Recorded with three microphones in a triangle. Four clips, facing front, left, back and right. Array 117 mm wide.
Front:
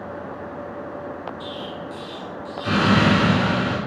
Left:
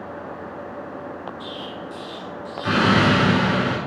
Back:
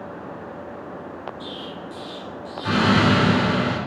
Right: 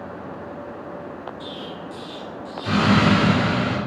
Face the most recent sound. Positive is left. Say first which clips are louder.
# left 1 dB, front 2 dB
turn(degrees=90)